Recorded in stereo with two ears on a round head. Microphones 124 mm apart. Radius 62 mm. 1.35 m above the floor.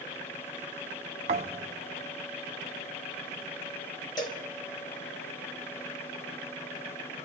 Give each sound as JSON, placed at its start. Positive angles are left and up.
{"t": 1.3, "sound": "a thud", "side_deg": -45, "distance_m": 0.8}
{"t": 4.2, "sound": "a cowbell", "side_deg": 30, "distance_m": 1.7}